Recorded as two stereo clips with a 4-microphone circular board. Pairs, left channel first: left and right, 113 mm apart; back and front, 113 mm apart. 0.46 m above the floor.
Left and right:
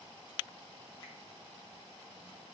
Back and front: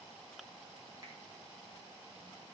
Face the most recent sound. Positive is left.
turn(degrees=50)